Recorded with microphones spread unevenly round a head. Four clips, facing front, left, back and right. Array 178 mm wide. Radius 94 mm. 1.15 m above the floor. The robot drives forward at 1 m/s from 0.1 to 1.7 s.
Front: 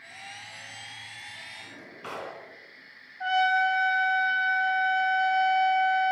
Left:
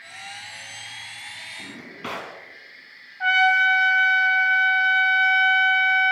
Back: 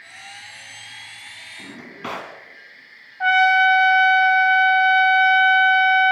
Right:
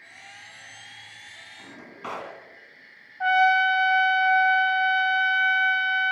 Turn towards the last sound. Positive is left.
turn(degrees=170)